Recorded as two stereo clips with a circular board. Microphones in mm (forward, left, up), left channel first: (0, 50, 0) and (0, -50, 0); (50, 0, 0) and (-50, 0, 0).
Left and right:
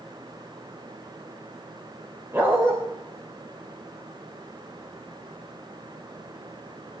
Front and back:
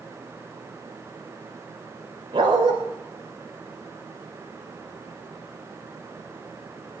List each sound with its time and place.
2.3 s a dog barking: 155° right, 6.5 m